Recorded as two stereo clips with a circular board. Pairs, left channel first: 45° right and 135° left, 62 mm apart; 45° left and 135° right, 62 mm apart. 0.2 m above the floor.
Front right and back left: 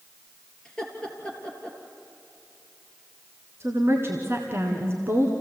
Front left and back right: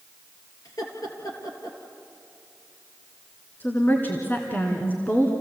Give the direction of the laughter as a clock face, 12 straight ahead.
11 o'clock.